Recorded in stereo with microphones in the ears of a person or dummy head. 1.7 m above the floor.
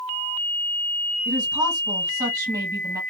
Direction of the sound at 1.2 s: 20° right (ahead or behind).